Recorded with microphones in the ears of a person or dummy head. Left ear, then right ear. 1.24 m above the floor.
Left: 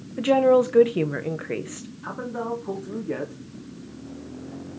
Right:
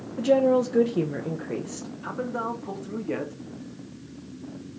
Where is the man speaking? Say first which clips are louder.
Even; 15° right (ahead or behind), 2.0 m.